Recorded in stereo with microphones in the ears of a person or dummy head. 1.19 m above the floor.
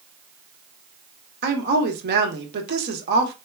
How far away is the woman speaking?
About 0.9 m.